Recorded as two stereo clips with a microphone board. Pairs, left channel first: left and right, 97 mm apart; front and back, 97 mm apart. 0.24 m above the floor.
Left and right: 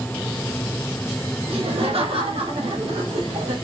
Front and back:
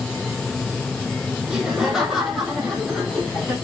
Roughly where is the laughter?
Right.